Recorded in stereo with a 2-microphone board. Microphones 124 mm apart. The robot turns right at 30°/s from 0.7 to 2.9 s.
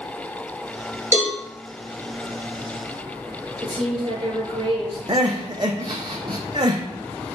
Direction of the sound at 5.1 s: 35° right (ahead or behind).